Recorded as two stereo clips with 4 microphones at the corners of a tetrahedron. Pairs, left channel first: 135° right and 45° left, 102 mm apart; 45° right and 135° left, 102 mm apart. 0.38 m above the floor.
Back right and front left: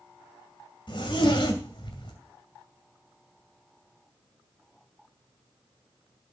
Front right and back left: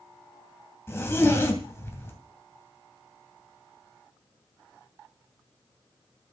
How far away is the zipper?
About 2.5 m.